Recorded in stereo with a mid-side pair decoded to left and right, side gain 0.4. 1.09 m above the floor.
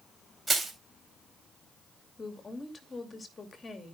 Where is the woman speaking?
35° left, 2.5 m.